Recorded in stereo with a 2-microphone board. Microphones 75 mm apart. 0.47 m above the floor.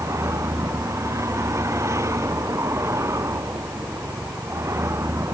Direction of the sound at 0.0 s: 40° right (ahead or behind).